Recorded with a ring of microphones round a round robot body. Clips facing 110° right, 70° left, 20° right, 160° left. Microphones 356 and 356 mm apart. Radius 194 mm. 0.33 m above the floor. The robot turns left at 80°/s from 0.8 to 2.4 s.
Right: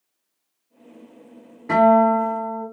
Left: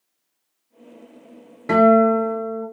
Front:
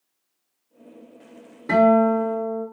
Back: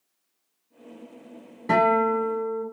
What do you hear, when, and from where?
1.7 s a guitar: 70° left, 1.6 m; by 2.6 s 15° left, 1.6 m